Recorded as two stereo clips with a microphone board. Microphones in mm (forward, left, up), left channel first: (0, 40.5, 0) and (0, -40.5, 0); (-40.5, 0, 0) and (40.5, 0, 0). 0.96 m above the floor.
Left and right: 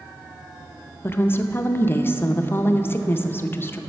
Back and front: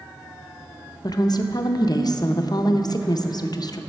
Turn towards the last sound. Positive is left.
turn(degrees=150)